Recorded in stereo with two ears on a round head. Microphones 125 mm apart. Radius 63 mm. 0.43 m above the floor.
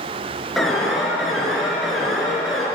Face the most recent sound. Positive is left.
turn(degrees=0)  # may be behind; listen again after turning